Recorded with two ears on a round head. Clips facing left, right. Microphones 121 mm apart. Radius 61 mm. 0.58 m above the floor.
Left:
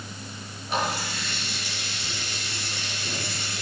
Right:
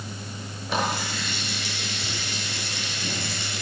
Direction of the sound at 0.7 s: 65° right (ahead or behind).